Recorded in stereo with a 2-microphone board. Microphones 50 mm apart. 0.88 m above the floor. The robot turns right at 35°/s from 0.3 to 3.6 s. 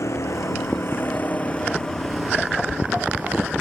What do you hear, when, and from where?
0.0 s a vehicle: 110° left; by 3.6 s 135° right